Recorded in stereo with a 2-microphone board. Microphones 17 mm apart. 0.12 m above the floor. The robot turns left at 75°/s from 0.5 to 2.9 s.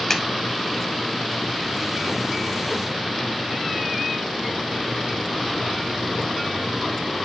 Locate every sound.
0.1 s a clap: 25° left (ahead or behind), 1.5 m